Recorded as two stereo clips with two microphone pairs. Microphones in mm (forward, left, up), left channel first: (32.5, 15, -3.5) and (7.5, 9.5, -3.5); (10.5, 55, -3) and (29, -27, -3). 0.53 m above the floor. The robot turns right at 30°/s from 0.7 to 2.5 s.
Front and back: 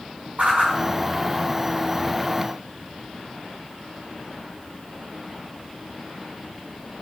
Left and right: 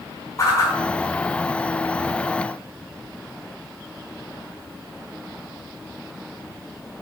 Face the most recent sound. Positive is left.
turn(degrees=-155)